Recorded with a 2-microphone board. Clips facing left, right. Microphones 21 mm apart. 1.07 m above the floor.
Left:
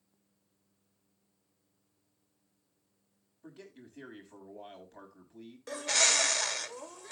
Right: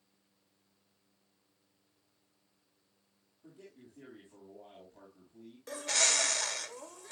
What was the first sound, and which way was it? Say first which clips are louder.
A man speaking: left 4 dB; 65° left (ahead or behind).